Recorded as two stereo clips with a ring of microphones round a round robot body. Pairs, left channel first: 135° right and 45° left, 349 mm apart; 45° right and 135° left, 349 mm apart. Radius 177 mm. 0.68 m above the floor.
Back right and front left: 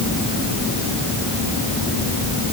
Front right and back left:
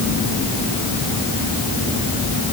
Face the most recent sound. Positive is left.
No sound to turn to.